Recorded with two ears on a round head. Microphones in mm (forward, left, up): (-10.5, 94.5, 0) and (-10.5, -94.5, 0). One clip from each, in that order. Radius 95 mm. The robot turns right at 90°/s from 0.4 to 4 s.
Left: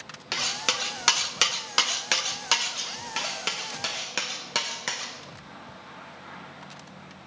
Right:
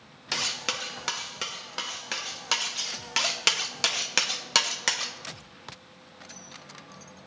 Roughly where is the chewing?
I don't hear chewing.